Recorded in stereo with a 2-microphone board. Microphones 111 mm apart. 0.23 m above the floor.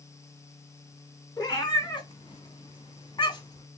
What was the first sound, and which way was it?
A cat meowing, 40° left (ahead or behind).